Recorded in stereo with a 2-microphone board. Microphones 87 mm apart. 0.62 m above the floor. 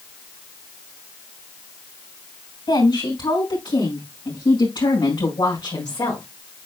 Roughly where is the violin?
I don't hear a violin.